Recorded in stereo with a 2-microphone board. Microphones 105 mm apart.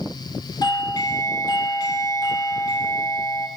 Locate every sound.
0.6 s a doorbell: 40° left (ahead or behind), 2 m